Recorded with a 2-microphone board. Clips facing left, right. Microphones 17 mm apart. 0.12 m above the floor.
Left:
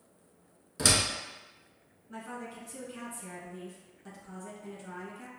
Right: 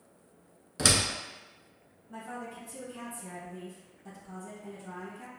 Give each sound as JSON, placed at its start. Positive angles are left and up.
{"t": 0.8, "sound": "a door slam", "side_deg": -15, "distance_m": 0.8}
{"t": 2.1, "sound": "a woman speaking", "side_deg": 30, "distance_m": 1.6}